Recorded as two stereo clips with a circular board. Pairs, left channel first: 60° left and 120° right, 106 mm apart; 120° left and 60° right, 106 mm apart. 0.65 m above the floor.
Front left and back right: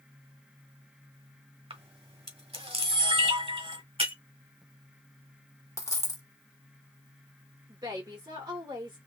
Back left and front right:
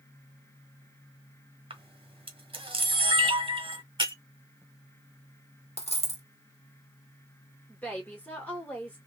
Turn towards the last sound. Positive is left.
turn(degrees=-165)